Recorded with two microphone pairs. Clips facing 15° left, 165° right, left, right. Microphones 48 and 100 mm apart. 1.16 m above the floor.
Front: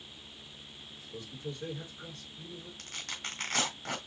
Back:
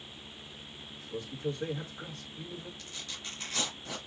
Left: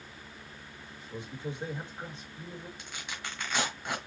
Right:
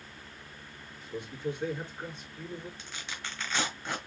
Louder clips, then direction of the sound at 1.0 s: Back 7 dB, right 3 dB; 155° left.